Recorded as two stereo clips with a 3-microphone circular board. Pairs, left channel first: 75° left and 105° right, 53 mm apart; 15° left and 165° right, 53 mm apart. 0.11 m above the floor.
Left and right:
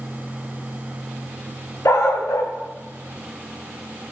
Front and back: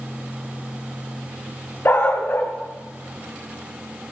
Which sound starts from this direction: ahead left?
A dog barking, at 1.9 s.